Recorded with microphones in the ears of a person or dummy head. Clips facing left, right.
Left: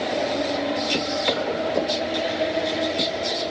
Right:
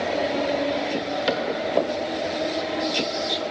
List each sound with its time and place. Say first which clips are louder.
1.3 s a cupboard door: right 1 dB; 10° right (ahead or behind), 0.5 m